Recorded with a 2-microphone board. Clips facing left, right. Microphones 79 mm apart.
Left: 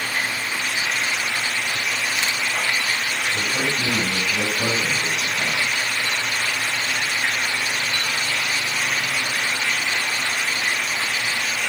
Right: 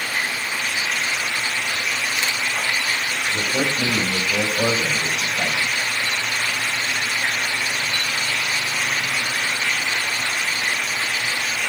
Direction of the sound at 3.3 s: 75° right (ahead or behind).